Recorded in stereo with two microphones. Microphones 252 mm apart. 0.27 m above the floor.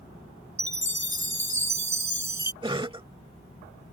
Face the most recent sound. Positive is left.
turn(degrees=-20)  # may be behind; listen again after turning